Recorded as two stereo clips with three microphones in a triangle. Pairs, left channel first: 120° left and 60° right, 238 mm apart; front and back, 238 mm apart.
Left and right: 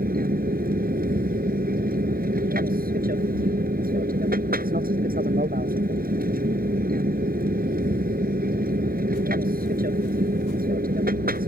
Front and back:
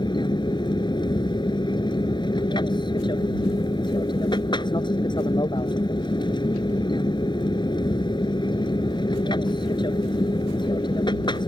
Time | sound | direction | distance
0.0 | an aircraft | 60° right | ?